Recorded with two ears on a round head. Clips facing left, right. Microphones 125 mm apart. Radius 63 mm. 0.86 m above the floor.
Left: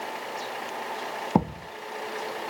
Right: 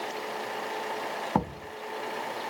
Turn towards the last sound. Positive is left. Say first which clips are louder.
# left 5 dB
turn(degrees=25)  # may be behind; listen again after turning